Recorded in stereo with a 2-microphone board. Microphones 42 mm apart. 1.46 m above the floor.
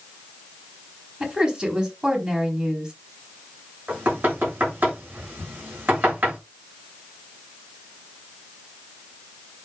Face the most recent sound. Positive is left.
turn(degrees=-50)  # may be behind; listen again after turning